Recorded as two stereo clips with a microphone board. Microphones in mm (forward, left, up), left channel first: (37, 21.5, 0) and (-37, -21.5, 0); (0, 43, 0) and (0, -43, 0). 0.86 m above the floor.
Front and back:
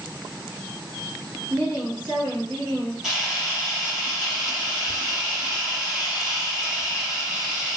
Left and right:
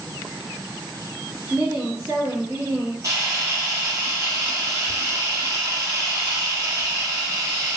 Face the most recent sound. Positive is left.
turn(degrees=-70)